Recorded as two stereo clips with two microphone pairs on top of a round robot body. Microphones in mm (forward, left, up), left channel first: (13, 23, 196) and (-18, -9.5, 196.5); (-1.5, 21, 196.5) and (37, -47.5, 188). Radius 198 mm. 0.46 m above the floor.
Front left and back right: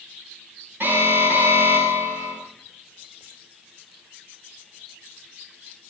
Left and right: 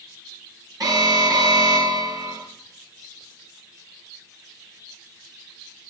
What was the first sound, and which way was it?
An alarm, 95° right.